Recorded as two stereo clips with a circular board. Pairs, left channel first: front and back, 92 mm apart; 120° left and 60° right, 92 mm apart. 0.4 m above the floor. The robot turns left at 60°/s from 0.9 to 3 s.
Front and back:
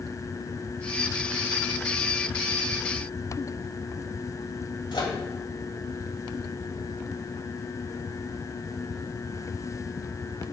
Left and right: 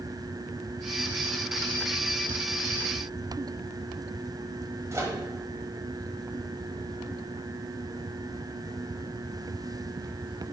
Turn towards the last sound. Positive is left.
turn(degrees=-10)